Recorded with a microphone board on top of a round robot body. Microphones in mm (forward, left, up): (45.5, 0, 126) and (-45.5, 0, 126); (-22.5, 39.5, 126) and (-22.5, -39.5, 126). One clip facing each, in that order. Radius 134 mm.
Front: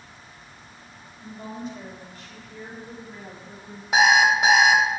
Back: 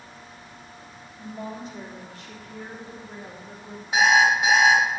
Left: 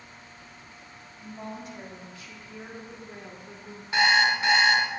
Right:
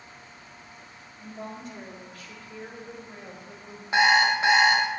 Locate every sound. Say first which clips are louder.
1.2 s a woman speaking: even, even; 170° right, 2.5 m; by 3.8 s 130° left, 3.5 m
3.9 s an alarm clock: front 1 dB, right 2 dB; 20° right, 1.6 m